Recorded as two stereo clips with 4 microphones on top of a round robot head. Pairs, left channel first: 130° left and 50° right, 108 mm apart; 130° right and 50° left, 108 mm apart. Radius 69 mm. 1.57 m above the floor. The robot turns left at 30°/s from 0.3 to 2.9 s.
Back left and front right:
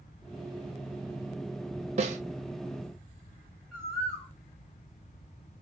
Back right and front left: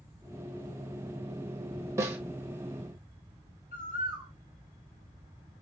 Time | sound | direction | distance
2.0 | a snare drum | 15° right | 1.4 m
3.7 | a bird | 145° right | 3.5 m